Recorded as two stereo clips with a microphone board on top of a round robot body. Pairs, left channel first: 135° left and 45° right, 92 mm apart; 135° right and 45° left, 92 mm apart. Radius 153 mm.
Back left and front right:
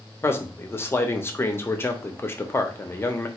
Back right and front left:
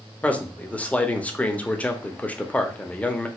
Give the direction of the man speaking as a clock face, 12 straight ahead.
6 o'clock.